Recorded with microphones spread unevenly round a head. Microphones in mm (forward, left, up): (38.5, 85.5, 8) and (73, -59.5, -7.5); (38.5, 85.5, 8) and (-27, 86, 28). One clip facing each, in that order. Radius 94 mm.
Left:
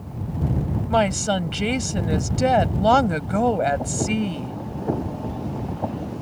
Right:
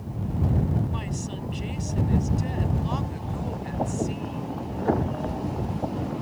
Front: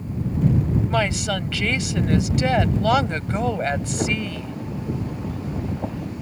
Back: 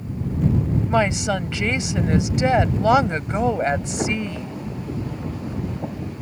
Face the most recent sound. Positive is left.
turn(degrees=115)